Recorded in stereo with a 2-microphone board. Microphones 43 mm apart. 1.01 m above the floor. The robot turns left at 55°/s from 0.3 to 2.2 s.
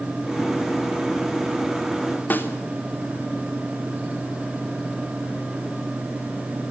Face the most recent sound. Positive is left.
turn(degrees=50)  # may be behind; listen again after turning